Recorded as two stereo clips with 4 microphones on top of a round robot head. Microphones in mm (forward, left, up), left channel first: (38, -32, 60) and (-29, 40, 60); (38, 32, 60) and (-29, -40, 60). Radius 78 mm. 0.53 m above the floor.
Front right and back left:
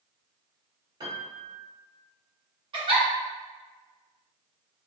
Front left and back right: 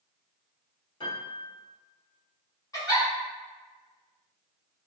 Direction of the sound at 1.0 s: 85° left.